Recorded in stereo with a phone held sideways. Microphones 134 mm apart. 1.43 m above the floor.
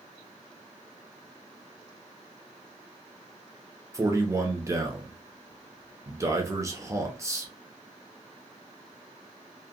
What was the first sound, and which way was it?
A man speaking, 20° right (ahead or behind).